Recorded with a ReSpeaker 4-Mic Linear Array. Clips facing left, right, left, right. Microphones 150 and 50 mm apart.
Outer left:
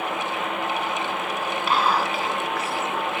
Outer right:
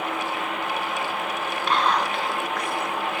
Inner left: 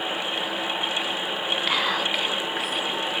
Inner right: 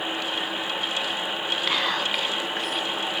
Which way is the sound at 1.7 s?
5° left (ahead or behind).